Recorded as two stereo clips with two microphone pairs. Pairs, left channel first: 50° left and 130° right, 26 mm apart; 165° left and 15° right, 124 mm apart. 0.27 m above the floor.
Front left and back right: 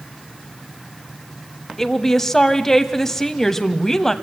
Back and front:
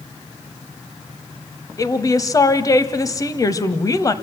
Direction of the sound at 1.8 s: 115° left.